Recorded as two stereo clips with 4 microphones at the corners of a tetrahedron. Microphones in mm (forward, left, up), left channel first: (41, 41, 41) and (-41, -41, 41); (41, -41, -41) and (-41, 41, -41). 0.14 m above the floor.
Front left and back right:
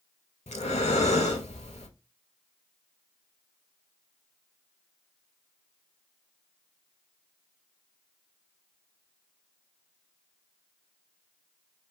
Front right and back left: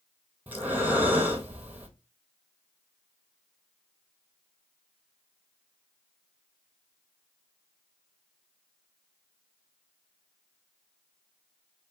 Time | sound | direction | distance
0.5 | breathing | 60° left | 0.6 m